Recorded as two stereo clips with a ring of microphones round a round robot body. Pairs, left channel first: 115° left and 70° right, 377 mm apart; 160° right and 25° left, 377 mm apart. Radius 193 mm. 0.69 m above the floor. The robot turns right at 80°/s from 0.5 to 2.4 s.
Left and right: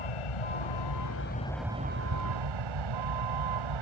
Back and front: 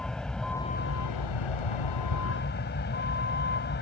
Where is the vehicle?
115° left; by 3.8 s 95° right.